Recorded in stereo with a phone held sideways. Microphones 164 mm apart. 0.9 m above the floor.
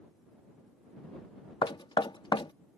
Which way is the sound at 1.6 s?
30° left (ahead or behind).